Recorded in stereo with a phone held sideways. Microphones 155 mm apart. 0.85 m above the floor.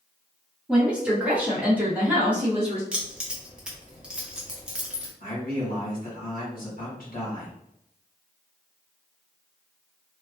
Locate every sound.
0.7 s a woman speaking: 5° right (ahead or behind), 1.2 m; by 2.8 s 10° right (ahead or behind), 1.0 m
2.9 s keys jangling: 5° right (ahead or behind), 0.7 m
5.2 s a man speaking: 70° left (ahead or behind), 1.4 m